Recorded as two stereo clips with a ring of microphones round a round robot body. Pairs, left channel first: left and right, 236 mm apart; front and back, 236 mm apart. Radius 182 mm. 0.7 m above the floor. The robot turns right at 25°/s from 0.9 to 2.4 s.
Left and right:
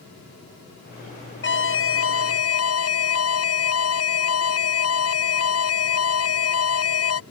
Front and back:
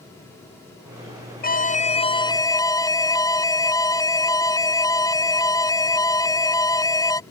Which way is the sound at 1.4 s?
50° left.